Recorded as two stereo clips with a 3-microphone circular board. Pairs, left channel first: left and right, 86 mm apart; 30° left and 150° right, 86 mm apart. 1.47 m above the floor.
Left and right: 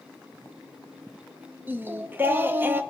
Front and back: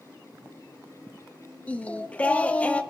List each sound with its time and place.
1.7 s singing: 35° right, 0.6 m